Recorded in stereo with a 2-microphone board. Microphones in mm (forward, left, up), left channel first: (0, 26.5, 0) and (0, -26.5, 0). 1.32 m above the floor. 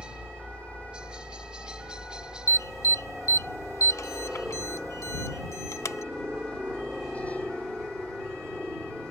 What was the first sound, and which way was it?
A helicopter, 15° right (ahead or behind).